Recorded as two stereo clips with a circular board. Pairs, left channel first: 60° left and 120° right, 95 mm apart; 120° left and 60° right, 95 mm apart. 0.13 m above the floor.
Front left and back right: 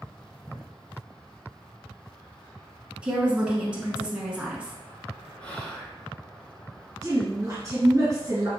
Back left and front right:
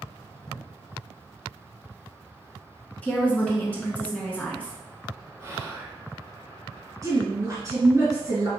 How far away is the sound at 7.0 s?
About 1.9 m.